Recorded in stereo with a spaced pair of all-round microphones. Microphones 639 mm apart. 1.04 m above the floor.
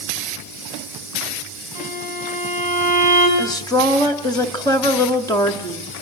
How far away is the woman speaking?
About 1.8 m.